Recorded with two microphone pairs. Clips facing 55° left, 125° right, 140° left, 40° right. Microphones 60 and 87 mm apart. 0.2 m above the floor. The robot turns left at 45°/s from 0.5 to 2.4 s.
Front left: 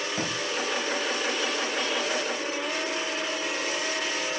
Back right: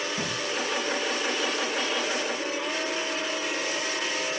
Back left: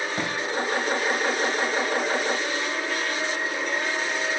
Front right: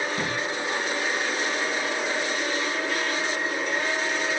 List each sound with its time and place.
0.2 s a drawer: 85° left, 4 m